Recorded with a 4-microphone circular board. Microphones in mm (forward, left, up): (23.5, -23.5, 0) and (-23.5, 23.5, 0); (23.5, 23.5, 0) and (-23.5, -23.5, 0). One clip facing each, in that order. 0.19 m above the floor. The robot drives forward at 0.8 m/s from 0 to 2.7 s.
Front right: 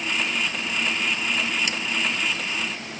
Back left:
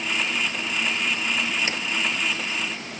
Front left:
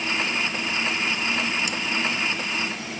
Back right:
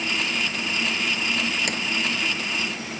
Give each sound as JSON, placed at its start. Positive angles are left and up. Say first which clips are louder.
{"t": 1.7, "sound": "a sliding door", "louder": "back left 1 dB, back right 1 dB", "azimuth_deg": -165}